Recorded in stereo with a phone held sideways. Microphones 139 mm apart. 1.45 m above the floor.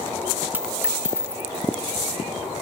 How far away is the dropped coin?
About 0.7 m.